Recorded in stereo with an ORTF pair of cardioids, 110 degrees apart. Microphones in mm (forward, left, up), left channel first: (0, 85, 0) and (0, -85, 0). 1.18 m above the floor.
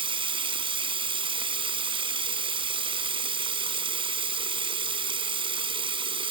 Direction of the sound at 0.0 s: 30° right.